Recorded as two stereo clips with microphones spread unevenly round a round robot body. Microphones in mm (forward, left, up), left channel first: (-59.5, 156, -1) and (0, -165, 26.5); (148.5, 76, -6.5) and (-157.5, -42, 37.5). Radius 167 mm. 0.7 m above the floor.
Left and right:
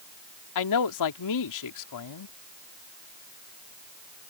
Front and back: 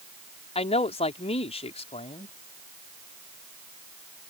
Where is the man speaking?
90° left.